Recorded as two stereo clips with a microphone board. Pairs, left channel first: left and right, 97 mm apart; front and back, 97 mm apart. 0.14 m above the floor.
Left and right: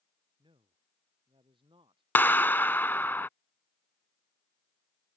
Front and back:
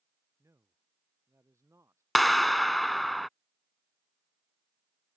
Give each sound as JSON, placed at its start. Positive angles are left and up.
{"t": 0.4, "sound": "a man speaking", "azimuth_deg": -120}
{"t": 2.1, "sound": "a clap", "azimuth_deg": 85}